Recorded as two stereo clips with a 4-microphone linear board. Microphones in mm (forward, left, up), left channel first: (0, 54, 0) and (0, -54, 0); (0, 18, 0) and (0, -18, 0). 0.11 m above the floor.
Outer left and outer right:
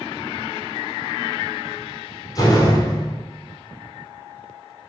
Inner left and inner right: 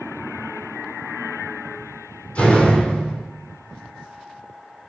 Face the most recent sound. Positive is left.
turn(degrees=40)  # may be behind; listen again after turning